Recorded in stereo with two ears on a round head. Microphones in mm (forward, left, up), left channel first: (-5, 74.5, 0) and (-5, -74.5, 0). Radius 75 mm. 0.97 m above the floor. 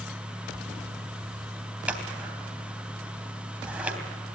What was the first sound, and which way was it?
Scissors, 5° right (ahead or behind).